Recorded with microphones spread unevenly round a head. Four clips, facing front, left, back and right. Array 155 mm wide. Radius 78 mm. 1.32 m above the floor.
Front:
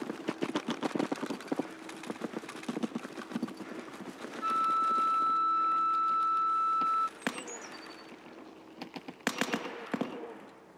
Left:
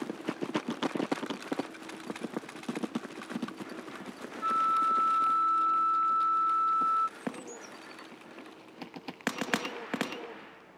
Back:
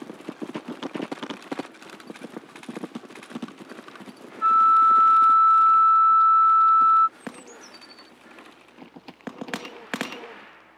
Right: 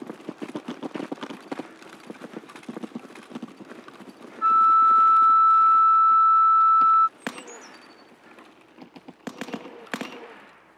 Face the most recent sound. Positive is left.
turn(degrees=-80)